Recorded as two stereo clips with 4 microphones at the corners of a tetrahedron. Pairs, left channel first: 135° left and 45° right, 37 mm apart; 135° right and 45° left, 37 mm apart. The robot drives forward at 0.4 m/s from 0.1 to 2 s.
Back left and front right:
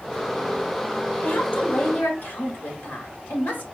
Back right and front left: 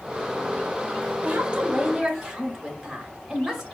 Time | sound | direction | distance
1.2 | a woman speaking | 100° left | 1.1 m